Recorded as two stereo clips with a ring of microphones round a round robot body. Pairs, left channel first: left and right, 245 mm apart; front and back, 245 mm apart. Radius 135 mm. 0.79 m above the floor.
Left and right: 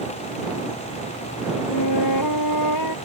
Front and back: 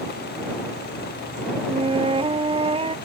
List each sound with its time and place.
1.7 s a flute: 110° left